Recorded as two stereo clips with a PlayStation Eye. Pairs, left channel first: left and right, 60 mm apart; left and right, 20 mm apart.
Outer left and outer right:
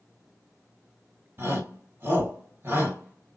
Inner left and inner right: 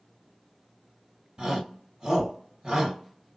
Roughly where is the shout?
Right.